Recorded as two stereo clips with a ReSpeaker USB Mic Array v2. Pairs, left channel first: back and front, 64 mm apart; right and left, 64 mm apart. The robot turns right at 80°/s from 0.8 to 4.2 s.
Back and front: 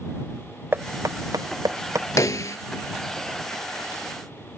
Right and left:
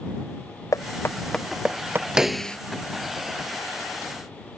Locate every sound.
0.7 s knocking: 55° right; by 2.1 s 45° left
2.2 s a snare drum: 170° left; by 2.6 s 160° right